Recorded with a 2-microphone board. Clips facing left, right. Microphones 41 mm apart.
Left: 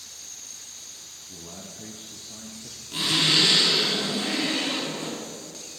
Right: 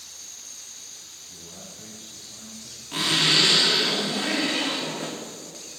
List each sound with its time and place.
1.3 s a man speaking: 55° left (ahead or behind), 2 m; by 2.8 s 60° left (ahead or behind), 4 m
2.9 s a zipper: 70° right (ahead or behind), 3.5 m